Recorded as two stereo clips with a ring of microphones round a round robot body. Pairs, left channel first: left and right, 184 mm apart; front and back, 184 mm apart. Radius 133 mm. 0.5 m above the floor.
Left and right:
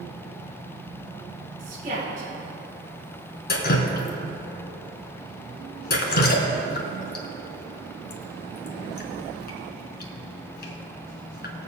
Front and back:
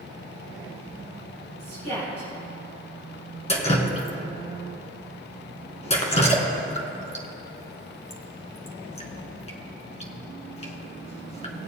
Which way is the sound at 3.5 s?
55° left.